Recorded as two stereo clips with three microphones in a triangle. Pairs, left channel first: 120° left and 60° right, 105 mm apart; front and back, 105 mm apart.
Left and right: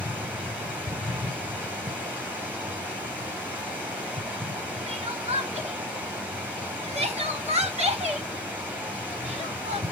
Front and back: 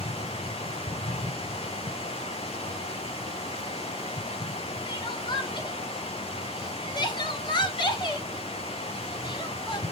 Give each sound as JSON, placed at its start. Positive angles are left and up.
{"t": 0.0, "sound": "running water", "azimuth_deg": 15, "distance_m": 6.0}
{"t": 4.9, "sound": "crying", "azimuth_deg": -45, "distance_m": 2.0}